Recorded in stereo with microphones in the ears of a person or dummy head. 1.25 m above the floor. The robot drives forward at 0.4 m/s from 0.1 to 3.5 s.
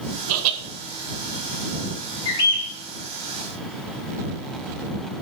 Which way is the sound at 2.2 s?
25° left (ahead or behind).